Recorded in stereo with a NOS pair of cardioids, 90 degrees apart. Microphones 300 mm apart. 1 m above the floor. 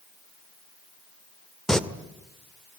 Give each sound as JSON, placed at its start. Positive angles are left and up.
{"t": 1.7, "sound": "singing", "azimuth_deg": 0, "distance_m": 1.7}